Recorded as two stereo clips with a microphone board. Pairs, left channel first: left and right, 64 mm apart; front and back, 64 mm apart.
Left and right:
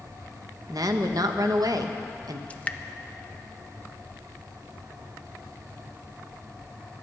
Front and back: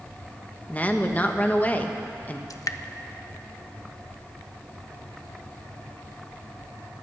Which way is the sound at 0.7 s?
65° right.